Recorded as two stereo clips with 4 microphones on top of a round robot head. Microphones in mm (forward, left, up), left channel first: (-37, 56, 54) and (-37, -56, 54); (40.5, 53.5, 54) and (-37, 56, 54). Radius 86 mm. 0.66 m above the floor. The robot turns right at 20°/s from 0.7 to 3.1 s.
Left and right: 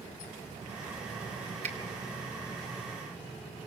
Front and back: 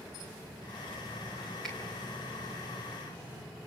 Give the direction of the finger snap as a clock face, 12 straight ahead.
3 o'clock.